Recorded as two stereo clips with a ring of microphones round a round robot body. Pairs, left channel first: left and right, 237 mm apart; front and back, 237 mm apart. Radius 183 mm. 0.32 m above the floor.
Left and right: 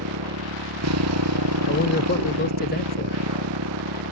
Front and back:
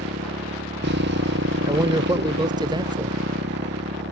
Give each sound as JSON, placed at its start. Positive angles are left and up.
{"t": 0.0, "sound": "a motorcycle", "azimuth_deg": -120}
{"t": 1.7, "sound": "a man speaking", "azimuth_deg": 115}